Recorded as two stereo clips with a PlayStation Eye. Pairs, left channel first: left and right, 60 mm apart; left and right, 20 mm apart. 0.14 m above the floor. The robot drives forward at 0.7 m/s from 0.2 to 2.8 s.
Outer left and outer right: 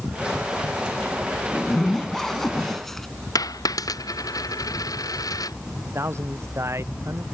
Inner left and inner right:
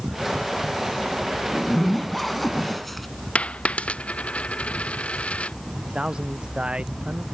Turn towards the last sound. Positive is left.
turn(degrees=-50)  # may be behind; listen again after turning